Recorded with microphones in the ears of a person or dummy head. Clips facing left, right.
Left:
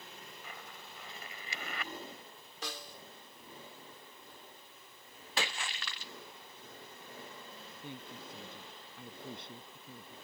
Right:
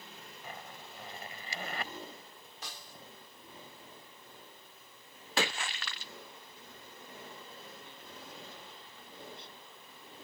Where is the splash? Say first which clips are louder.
Right 5 dB; 35° right (ahead or behind).